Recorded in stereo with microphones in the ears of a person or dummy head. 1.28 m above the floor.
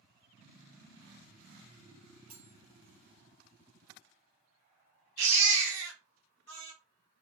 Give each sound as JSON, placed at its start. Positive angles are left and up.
{"t": 2.3, "sound": "cutlery clinking", "side_deg": -40, "distance_m": 0.7}
{"t": 5.2, "sound": "a baby crying", "side_deg": -70, "distance_m": 1.2}